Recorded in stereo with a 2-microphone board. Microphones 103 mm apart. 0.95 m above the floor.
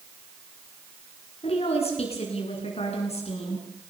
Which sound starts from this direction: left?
A woman speaking, at 1.4 s.